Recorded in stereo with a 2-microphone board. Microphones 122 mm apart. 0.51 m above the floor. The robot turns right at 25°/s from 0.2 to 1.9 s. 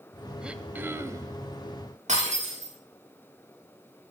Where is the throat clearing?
5° right (ahead or behind), 0.6 m; by 1.4 s 30° right (ahead or behind), 0.6 m.